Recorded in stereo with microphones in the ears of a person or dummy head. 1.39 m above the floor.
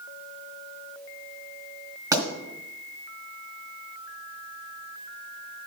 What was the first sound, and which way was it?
A pop, 15° right (ahead or behind).